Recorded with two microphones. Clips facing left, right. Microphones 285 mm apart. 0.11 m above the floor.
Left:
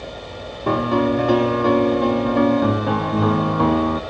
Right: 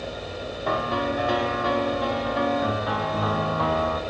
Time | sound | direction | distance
0.7 | a piano | 55° left (ahead or behind) | 0.8 m